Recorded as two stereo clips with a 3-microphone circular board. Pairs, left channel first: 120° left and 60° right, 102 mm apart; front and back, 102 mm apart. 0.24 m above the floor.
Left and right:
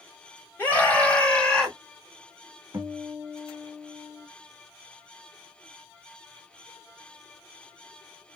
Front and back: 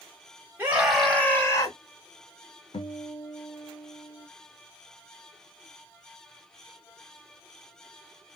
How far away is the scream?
About 1.2 m.